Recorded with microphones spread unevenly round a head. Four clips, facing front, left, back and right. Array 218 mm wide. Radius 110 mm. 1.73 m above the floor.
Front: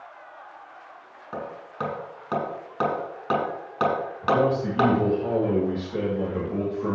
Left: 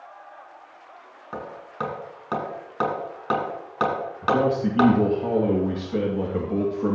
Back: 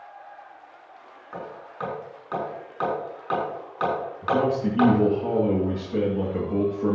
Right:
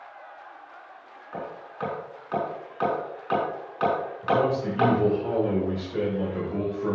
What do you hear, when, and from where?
1.3 s hammering: 55° left, 6 m
4.2 s a man speaking: 120° left, 2 m